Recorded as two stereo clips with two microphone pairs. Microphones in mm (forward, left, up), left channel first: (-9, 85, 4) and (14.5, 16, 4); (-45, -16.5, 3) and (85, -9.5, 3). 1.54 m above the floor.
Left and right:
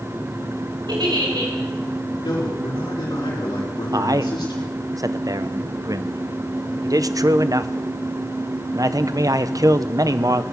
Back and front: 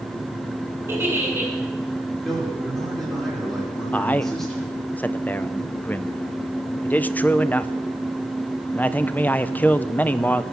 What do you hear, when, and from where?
0.9 s a giggle: 70° right, 3.5 m
2.2 s a man speaking: 95° left, 5 m
3.9 s a man speaking: 100° right, 0.6 m